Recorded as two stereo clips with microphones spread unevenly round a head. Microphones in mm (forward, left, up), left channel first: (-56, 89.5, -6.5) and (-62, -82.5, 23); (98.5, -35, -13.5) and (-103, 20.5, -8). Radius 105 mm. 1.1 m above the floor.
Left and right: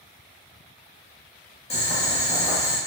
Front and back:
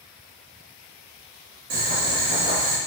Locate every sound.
1.7 s boiling: 145° left, 1.1 m